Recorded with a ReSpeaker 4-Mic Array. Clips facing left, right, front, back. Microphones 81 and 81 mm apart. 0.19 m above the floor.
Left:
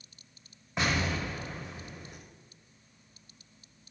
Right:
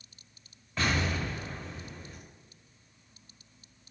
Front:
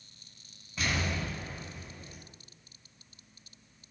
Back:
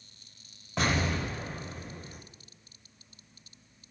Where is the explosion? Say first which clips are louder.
Even, back 4 dB; 160° left, 6 m.